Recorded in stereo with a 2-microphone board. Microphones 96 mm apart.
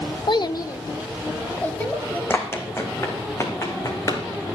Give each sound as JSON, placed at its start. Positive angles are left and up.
{"t": 0.3, "sound": "a child speaking", "side_deg": 50, "distance_m": 0.6}
{"t": 2.3, "sound": "running footsteps", "side_deg": 25, "distance_m": 2.0}